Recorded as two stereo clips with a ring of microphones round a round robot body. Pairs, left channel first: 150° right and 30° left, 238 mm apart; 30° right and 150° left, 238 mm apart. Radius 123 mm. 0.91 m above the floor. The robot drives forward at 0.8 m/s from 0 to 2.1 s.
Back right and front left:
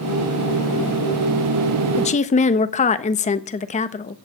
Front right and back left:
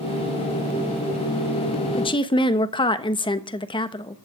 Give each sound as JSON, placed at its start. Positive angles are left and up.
{"t": 2.0, "sound": "a woman speaking", "azimuth_deg": -90, "distance_m": 1.2}